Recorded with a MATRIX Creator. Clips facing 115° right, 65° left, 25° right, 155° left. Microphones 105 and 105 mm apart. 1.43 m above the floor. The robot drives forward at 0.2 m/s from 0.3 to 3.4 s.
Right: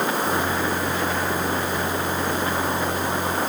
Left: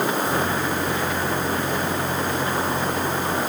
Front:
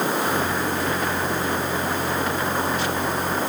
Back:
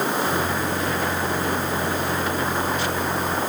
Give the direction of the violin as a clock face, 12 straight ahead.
No violin in this recording.